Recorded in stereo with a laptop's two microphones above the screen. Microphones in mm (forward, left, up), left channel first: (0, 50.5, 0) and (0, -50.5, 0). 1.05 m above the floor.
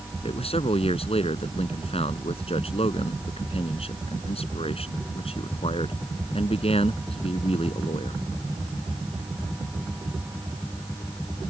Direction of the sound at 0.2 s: 75° left (ahead or behind).